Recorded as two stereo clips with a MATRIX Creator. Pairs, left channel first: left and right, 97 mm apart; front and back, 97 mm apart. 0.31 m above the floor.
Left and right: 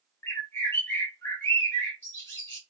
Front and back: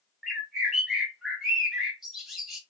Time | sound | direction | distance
0.2 | a bird | 95° left | 1.5 m